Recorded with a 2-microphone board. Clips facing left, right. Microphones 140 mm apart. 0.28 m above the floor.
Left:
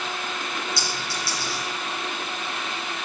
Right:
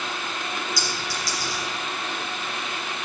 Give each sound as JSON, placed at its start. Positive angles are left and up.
{"t": 0.8, "sound": "a clink", "side_deg": 25, "distance_m": 4.5}